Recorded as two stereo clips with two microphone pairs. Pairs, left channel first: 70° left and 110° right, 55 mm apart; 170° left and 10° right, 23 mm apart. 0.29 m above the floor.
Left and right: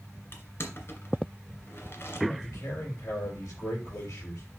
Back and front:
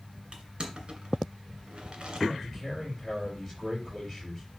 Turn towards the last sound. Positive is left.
turn(degrees=80)